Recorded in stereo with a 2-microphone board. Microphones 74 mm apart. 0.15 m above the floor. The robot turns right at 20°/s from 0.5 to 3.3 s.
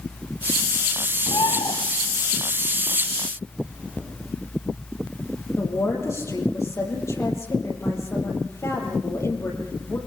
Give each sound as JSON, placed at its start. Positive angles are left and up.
{"t": 1.3, "sound": "a bird", "side_deg": 75, "distance_m": 2.0}
{"t": 3.6, "sound": "chewing", "side_deg": -20, "distance_m": 5.0}
{"t": 5.6, "sound": "a woman speaking", "side_deg": 40, "distance_m": 4.5}